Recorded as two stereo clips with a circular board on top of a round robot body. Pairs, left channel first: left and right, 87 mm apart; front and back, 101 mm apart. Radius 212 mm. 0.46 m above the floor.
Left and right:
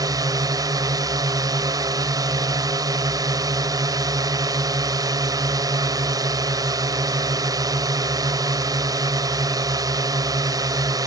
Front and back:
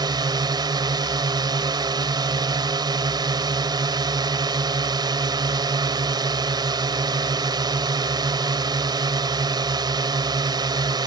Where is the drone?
135° right.